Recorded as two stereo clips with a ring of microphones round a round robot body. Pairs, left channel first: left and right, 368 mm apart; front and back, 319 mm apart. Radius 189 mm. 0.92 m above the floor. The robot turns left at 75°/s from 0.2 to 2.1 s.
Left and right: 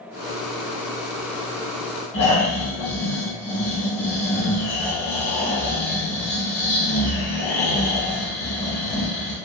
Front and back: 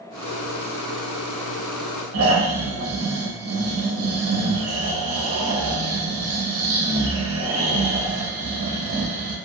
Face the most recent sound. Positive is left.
turn(degrees=130)